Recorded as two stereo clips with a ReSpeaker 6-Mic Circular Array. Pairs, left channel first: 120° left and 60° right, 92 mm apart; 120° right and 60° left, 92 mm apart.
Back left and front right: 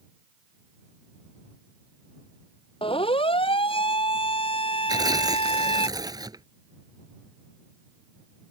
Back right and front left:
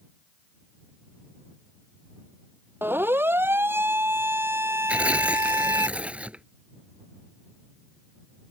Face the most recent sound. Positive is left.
turn(degrees=-15)